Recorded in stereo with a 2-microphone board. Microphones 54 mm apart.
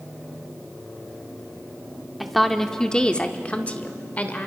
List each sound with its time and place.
2.2 s a woman speaking: centre (ahead or behind), 1.1 m; by 4.5 s 30° left (ahead or behind), 1.8 m